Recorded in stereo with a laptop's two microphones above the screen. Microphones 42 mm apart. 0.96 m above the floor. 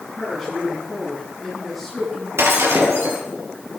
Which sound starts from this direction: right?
Breaking glass, at 2.4 s.